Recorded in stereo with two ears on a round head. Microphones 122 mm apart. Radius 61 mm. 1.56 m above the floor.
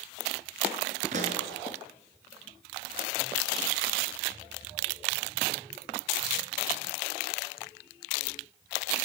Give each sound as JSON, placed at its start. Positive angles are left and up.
{"t": 1.1, "sound": "a pop", "side_deg": -55, "distance_m": 4.5}